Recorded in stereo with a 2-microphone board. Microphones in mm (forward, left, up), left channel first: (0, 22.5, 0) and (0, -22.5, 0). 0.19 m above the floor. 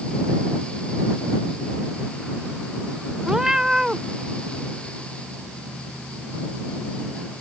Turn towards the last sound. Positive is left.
turn(degrees=-10)  # may be behind; listen again after turning